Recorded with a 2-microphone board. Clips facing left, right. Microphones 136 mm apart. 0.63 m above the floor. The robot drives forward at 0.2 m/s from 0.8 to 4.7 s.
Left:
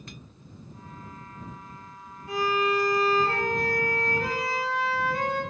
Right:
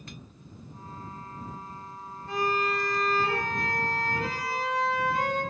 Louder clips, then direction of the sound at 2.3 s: Left 3 dB; 10° left (ahead or behind).